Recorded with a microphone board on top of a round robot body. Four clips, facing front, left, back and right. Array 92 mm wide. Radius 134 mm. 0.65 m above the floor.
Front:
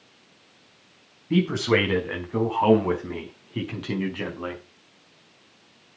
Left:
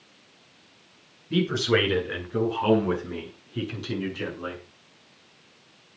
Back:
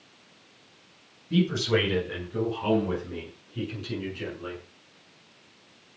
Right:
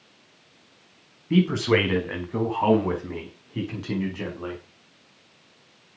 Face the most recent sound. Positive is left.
turn(degrees=-20)